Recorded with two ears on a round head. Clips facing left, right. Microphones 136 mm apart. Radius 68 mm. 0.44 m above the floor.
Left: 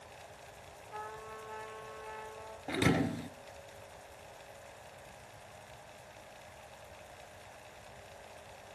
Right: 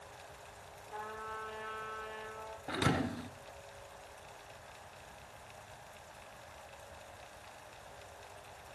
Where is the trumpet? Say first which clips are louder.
Right 1 dB; 40° right (ahead or behind), 8.5 m.